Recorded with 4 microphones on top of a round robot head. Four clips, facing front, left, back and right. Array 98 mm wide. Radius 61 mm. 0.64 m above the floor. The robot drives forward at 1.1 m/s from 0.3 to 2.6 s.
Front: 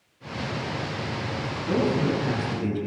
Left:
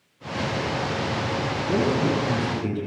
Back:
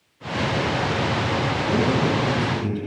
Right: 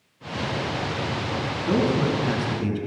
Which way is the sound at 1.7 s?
80° right.